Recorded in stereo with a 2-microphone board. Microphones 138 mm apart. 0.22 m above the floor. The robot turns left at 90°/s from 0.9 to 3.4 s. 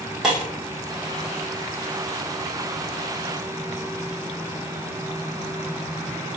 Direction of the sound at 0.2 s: 5° right (ahead or behind).